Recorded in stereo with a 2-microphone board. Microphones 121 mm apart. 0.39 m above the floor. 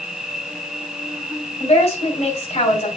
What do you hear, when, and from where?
0.0 s an insect: 5° right (ahead or behind), 1.0 m
1.6 s a woman speaking: 65° left (ahead or behind), 3 m